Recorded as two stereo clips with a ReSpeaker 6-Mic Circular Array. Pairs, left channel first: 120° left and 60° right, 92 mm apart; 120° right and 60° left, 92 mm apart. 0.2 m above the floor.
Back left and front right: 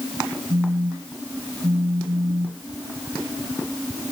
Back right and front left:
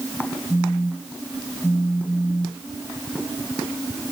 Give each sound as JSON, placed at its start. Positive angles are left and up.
{"t": 0.5, "sound": "a phone buzzing", "azimuth_deg": -50}